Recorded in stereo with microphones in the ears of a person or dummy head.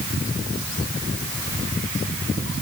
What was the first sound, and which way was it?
Only background noise.